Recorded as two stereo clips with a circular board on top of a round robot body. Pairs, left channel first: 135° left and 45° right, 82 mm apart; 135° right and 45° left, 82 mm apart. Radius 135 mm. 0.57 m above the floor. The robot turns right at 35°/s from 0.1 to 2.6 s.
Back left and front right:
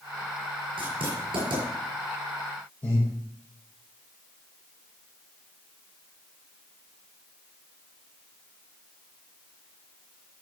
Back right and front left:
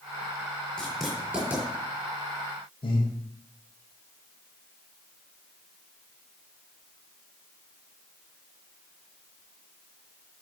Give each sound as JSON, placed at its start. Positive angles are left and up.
{"t": 0.8, "sound": "writing", "azimuth_deg": -55, "distance_m": 6.5}
{"t": 2.8, "sound": "breathing", "azimuth_deg": -155, "distance_m": 5.0}